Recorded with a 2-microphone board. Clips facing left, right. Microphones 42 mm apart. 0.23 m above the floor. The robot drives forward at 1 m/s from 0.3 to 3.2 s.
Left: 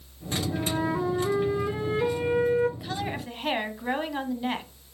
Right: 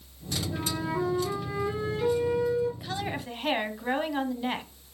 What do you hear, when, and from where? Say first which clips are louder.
0.5 s a flute: left 3 dB; 15° left (ahead or behind), 3 m; by 2.7 s 55° left (ahead or behind), 0.9 m
2.8 s a woman speaking: left 1 dB; 5° left (ahead or behind), 1.2 m; by 4.7 s centre (ahead or behind), 1.5 m